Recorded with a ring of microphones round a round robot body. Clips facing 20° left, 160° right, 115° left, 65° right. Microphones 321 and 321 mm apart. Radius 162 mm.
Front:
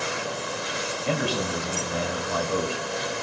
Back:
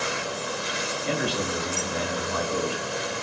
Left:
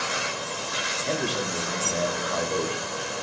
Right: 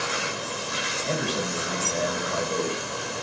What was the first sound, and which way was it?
A man speaking, 10° left.